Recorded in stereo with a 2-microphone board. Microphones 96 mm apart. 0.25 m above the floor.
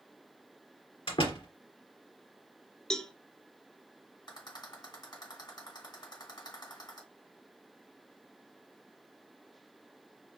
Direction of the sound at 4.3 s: 50° left (ahead or behind).